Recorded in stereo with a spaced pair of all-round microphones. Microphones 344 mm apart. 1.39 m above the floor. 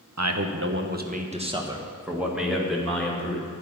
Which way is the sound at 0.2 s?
55° right (ahead or behind).